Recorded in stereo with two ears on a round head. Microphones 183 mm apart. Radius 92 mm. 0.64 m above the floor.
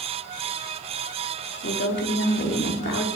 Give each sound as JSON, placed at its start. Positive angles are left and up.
{"t": 1.6, "sound": "a woman speaking", "side_deg": 50, "distance_m": 1.8}